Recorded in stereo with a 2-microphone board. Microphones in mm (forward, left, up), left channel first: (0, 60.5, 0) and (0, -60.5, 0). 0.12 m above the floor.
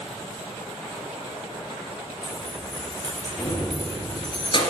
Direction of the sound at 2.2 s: Centre (ahead or behind).